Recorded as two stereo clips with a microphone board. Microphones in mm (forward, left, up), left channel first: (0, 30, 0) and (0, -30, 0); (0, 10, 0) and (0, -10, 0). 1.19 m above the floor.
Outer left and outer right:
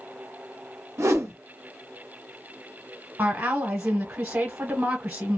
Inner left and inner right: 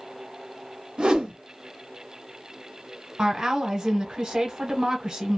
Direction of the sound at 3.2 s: 35° right (ahead or behind).